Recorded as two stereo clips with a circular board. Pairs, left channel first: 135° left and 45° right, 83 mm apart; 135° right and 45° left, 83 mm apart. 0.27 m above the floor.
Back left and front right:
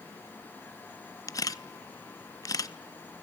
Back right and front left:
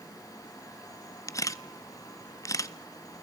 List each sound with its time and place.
1.3 s a camera shutter: straight behind, 0.5 m